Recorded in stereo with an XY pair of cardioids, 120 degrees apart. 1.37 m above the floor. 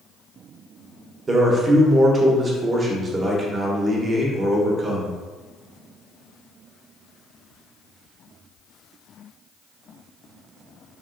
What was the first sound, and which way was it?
A man speaking, 30° right.